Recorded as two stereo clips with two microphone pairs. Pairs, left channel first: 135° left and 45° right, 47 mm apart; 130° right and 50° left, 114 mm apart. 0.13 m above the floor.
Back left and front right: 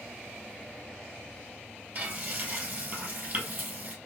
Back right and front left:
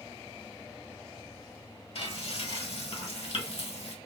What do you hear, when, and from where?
1.9 s frying: 100° right, 1.8 m